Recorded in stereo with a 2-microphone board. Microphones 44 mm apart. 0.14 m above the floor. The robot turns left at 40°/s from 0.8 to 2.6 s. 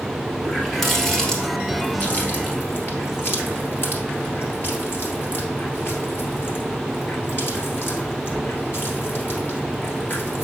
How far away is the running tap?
About 1.8 m.